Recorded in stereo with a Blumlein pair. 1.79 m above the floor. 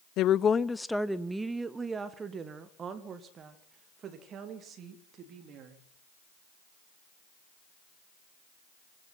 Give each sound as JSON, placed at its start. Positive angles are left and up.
{"t": 0.2, "sound": "a woman speaking", "azimuth_deg": 40, "distance_m": 0.6}